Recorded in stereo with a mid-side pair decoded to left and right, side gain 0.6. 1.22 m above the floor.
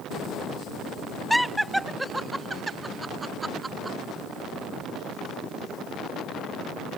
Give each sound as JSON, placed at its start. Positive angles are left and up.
{"t": 1.3, "sound": "laughter", "azimuth_deg": 0}